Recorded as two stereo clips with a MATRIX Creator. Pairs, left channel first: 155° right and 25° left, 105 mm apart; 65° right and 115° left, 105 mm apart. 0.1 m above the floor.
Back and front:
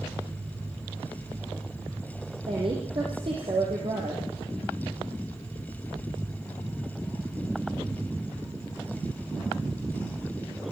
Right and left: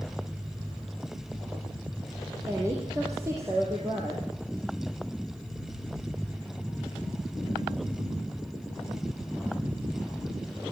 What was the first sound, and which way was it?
A woman speaking, 50° left.